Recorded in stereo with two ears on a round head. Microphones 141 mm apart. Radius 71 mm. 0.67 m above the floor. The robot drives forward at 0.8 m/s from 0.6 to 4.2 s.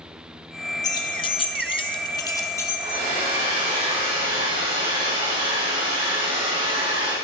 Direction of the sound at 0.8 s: 25° left (ahead or behind).